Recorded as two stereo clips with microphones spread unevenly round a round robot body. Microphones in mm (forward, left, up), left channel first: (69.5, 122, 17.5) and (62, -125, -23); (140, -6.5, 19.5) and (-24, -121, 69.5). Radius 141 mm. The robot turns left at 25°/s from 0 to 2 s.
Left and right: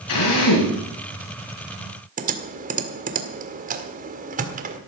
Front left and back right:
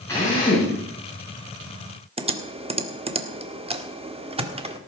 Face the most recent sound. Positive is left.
turn(degrees=-80)